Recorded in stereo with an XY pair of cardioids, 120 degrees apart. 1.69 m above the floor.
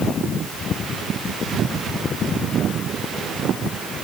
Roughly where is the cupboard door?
No cupboard door in this recording.